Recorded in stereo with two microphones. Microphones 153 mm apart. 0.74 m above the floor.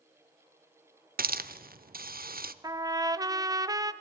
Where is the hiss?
75° right (ahead or behind), 0.7 m.